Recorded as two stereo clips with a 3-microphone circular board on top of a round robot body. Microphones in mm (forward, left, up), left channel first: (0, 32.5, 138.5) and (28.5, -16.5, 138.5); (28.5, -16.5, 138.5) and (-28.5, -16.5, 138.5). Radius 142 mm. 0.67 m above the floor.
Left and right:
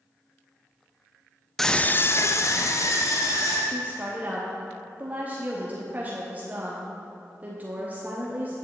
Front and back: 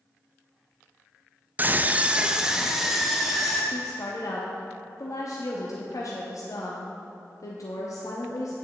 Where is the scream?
160° right, 0.5 m; by 3.6 s 90° left, 1.5 m.